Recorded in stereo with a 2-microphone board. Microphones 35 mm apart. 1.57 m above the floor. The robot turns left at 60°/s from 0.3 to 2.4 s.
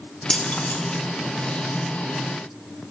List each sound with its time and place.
0.3 s keys jangling: 30° left (ahead or behind), 2.5 m; by 0.8 s 55° left (ahead or behind), 2.5 m